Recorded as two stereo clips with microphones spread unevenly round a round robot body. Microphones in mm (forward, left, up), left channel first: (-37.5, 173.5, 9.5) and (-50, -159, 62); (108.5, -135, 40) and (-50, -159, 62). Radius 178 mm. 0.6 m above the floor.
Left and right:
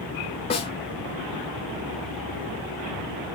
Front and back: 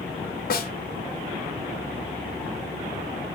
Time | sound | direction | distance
0.5 | a snare drum | 20° left | 1.9 m